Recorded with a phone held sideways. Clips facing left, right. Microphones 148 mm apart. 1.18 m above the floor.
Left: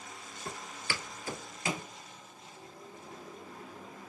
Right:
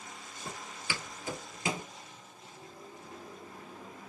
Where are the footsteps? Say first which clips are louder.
Left 1 dB; 15° right (ahead or behind), 1.4 m; by 1.9 s 25° right (ahead or behind), 1.3 m.